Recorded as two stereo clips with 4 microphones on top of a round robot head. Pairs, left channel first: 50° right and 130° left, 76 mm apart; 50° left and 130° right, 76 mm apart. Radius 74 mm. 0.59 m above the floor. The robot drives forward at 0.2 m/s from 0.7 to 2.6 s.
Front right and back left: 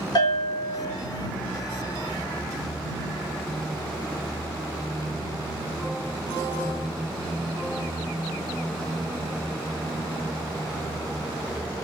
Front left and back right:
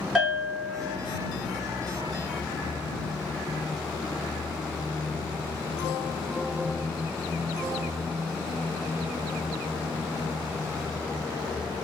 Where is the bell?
55° right, 2.5 m.